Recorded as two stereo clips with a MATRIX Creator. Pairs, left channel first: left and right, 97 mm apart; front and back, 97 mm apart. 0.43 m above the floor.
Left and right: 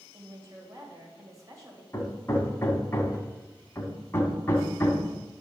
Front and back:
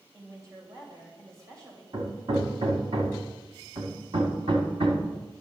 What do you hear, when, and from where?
0.1 s a woman speaking: 135° right, 2.5 m
1.9 s hammering: 155° left, 1.5 m